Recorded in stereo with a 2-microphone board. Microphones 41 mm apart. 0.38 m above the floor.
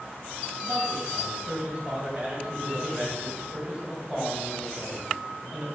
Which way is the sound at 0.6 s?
30° right (ahead or behind).